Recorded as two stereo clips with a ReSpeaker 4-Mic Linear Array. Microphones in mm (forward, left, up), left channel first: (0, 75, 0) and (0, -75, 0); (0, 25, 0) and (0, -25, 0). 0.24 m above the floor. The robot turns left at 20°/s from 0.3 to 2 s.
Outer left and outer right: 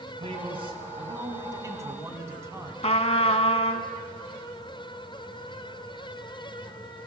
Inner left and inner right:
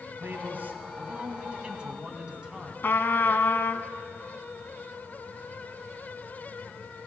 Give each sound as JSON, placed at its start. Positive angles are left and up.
{"t": 0.2, "sound": "a man speaking", "azimuth_deg": -120, "distance_m": 1.7}
{"t": 2.8, "sound": "a trumpet", "side_deg": 45, "distance_m": 0.7}